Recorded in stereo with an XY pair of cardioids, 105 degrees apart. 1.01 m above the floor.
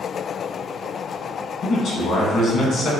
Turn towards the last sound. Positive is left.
turn(degrees=70)